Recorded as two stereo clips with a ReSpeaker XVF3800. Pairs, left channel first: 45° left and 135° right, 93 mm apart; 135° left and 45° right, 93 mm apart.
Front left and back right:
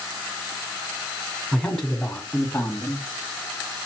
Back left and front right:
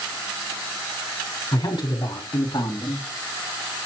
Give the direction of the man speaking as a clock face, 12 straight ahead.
8 o'clock.